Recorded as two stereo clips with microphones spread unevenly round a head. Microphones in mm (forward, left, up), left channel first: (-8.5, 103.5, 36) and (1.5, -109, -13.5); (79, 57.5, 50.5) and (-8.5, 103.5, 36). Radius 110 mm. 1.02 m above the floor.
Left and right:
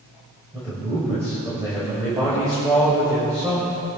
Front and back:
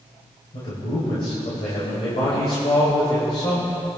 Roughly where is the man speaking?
Ahead.